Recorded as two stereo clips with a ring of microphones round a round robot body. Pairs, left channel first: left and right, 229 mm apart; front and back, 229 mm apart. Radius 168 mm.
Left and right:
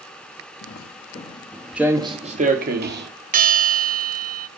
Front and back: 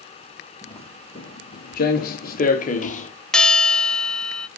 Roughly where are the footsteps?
Left.